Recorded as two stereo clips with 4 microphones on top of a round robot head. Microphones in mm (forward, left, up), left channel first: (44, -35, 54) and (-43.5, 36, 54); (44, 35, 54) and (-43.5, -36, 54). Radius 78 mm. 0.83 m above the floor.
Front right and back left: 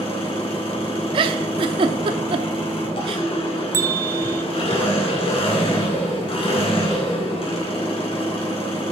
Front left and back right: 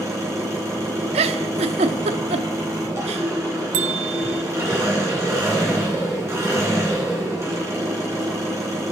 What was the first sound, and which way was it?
An engine running, 75° right.